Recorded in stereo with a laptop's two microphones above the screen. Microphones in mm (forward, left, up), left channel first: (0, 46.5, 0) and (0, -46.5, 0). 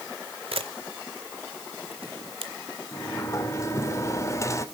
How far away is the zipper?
I don't hear a zipper.